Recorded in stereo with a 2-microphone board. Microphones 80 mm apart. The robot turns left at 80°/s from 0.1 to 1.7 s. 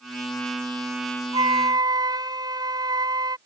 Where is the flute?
80° right; by 3.4 s 60° right (ahead or behind).